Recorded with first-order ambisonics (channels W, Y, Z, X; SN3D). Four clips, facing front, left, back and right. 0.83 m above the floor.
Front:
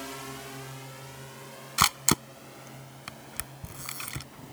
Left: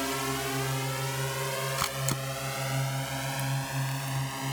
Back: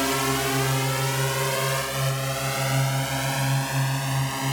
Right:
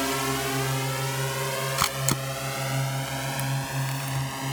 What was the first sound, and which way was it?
A drone, 160° right.